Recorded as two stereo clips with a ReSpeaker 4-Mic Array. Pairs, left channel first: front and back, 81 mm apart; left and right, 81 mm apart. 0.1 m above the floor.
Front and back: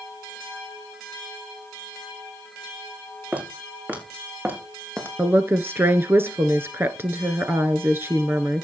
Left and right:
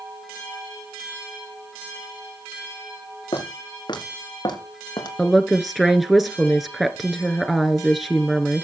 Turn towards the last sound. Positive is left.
turn(degrees=-175)